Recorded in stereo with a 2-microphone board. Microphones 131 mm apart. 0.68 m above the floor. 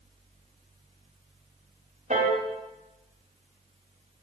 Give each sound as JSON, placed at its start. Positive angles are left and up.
{"t": 2.1, "sound": "a piano", "side_deg": -80, "distance_m": 1.6}